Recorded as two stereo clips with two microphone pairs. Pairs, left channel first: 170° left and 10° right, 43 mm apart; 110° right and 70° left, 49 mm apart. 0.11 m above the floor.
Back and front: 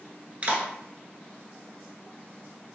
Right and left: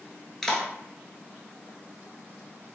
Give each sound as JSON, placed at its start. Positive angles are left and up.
{"t": 0.4, "sound": "a clap", "azimuth_deg": -40, "distance_m": 1.2}